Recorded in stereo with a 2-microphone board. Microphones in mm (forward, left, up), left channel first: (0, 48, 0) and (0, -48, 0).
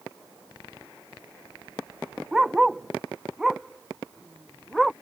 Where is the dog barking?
5° right (ahead or behind); by 4.9 s centre (ahead or behind).